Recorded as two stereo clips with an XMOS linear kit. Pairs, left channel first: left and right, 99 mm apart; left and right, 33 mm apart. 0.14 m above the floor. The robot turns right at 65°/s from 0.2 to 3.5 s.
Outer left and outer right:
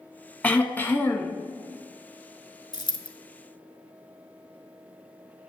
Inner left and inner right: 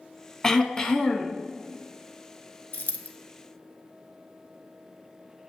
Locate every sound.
0.4 s throat clearing: 15° left (ahead or behind), 0.6 m; by 1.4 s 20° left (ahead or behind), 0.6 m
2.7 s a dropped coin: 50° left (ahead or behind), 0.6 m; by 3.1 s 55° left (ahead or behind), 0.6 m